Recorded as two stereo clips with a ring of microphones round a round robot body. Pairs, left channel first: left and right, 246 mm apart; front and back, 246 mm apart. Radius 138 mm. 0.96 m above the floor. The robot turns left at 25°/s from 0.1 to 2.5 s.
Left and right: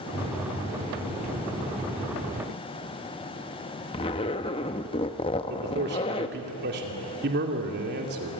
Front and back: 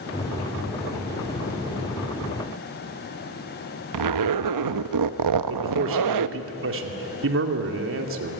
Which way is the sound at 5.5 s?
145° right.